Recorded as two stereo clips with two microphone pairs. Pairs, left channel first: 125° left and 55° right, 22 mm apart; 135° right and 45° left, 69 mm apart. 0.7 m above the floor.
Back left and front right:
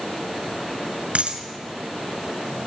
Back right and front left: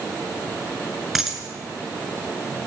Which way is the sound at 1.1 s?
45° right.